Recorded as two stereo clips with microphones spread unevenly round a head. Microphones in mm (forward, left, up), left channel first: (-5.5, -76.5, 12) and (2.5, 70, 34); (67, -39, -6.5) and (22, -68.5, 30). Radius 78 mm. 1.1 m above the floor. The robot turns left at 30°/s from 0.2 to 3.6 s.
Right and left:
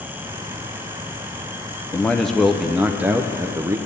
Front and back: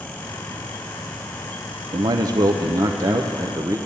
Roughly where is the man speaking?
Behind right.